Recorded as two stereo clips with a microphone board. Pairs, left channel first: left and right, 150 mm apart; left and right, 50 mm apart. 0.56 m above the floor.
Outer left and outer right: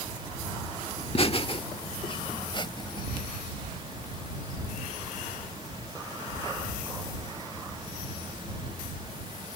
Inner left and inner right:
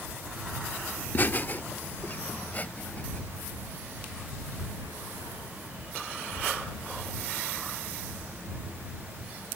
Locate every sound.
1.0 s laughter: 40° left (ahead or behind); by 3.2 s 30° left (ahead or behind)